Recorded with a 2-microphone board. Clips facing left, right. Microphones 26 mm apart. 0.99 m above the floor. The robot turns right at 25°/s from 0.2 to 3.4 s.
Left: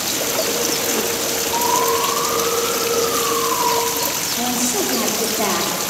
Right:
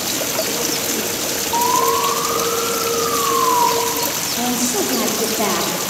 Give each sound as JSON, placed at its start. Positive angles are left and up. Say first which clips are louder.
{"t": 1.5, "sound": "an alarm", "louder": "right 2 dB", "azimuth_deg": -160, "distance_m": 4.0}
{"t": 4.4, "sound": "a woman speaking", "louder": "right 2 dB", "side_deg": -5, "distance_m": 2.0}